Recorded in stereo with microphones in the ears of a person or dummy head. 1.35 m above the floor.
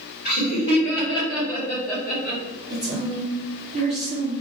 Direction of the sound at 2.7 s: 25° right (ahead or behind).